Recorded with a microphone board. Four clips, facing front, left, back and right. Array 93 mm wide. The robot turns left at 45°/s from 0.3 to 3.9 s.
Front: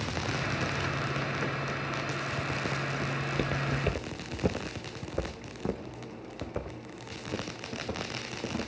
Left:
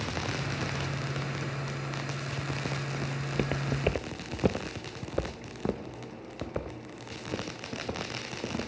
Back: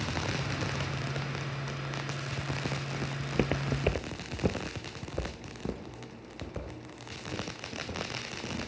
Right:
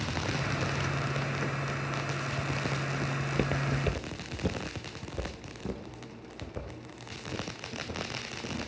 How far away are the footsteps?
About 1.0 m.